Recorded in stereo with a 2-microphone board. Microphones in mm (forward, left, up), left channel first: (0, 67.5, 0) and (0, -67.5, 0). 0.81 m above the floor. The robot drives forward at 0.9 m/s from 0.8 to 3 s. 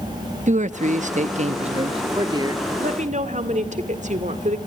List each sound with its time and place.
0.5 s a man speaking: 60° right (ahead or behind), 0.9 m; by 2.7 s 25° right (ahead or behind), 1.7 m
2.8 s a woman speaking: 65° right (ahead or behind), 1.9 m; by 4.6 s 60° right (ahead or behind), 1.9 m